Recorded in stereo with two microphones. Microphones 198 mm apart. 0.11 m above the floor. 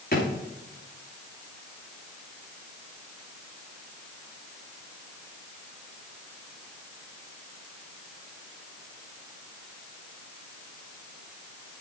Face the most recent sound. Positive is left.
turn(degrees=50)  # may be behind; listen again after turning